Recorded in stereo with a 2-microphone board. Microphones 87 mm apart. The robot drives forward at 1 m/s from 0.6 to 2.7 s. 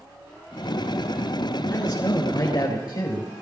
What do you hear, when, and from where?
1.7 s a man speaking: 45° left (ahead or behind), 4 m; by 3.3 s 55° left (ahead or behind), 3.5 m